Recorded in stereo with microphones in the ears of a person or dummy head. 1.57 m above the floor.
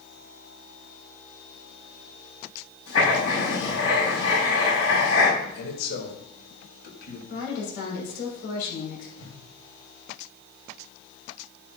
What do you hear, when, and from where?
2.9 s writing: 90° left, 6 m
5.4 s a man speaking: 55° left (ahead or behind), 3.5 m
7.3 s a woman speaking: 75° left (ahead or behind), 6 m
9.2 s a whoosh: 75° left (ahead or behind), 3 m